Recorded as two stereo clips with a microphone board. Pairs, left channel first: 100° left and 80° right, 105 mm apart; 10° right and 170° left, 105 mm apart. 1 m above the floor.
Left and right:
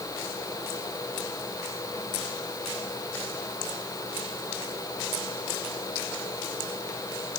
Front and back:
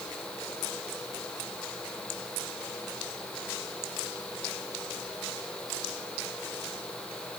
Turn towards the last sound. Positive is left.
No sound to turn to.